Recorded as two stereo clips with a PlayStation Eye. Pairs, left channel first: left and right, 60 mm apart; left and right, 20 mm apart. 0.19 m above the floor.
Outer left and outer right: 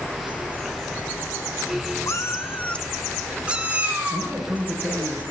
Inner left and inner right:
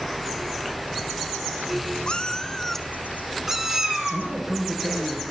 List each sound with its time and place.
2.1 s a cat meowing: 55° left (ahead or behind), 0.9 m; by 4.3 s 30° right (ahead or behind), 1.6 m
4.1 s a man speaking: 30° right (ahead or behind), 5 m